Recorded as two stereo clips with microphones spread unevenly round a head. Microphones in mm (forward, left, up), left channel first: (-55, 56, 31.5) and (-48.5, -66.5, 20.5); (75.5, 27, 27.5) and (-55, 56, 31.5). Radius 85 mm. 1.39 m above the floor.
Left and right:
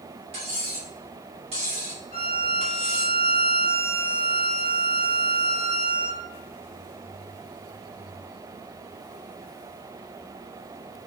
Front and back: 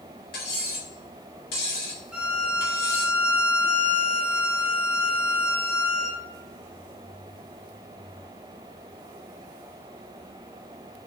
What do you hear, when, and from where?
0.3 s cutlery clinking: 30° right, 2 m
2.1 s a violin: 85° left, 1.9 m